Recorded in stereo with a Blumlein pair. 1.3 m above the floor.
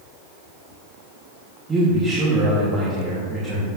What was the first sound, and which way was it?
A man speaking, 15° right.